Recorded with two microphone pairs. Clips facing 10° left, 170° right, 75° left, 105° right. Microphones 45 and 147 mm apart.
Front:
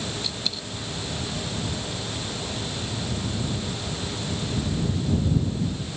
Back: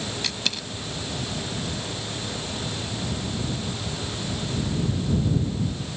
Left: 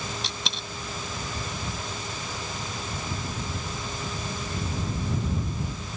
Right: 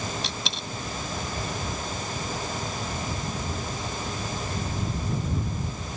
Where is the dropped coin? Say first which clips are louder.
Back 2 dB, right 2 dB; 165° left.